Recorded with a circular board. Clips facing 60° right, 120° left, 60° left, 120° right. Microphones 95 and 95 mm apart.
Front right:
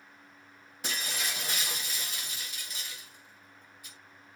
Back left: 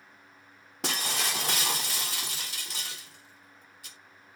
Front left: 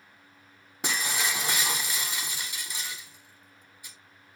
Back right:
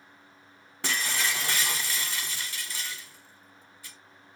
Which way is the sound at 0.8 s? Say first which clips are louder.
Back left 4 dB, even; 135° left.